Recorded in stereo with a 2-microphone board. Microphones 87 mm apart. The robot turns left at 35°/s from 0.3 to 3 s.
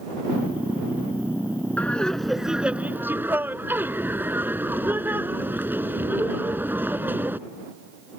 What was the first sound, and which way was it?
Laughter, 20° left.